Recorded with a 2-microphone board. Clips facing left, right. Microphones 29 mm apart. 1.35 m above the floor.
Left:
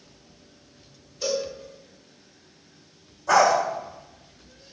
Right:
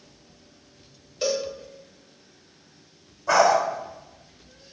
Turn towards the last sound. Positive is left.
turn(degrees=-20)  # may be behind; listen again after turning